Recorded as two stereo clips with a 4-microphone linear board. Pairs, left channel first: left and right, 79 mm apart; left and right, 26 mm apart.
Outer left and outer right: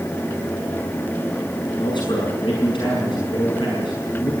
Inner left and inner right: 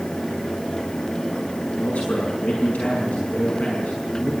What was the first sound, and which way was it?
A man speaking, 85° left.